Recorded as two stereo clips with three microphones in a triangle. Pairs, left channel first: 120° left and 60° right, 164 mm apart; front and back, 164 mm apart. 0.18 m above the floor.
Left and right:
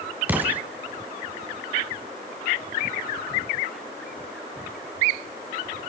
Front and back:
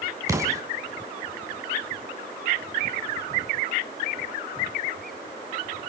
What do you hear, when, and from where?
0.3 s an explosion: 130° right, 1.7 m